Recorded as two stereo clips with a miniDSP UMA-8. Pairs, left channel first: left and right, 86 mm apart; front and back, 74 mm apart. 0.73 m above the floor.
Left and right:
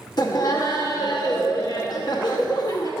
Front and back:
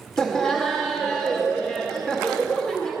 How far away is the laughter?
About 0.8 m.